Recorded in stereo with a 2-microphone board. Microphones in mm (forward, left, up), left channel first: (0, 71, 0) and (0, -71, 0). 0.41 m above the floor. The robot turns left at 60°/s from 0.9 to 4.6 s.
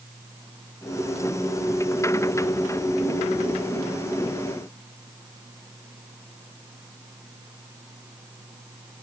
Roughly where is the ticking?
No ticking in this recording.